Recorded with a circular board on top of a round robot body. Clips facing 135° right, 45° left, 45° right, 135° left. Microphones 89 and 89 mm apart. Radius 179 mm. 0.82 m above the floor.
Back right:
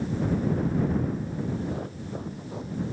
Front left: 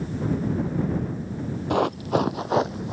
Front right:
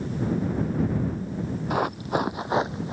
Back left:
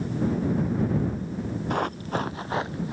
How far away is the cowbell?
No cowbell in this recording.